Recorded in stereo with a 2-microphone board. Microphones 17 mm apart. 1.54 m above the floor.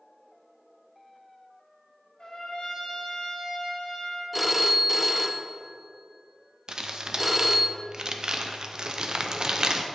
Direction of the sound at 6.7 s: 55° right (ahead or behind).